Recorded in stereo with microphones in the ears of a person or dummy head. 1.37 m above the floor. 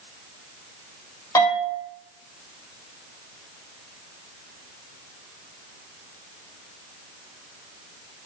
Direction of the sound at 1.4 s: 15° left (ahead or behind).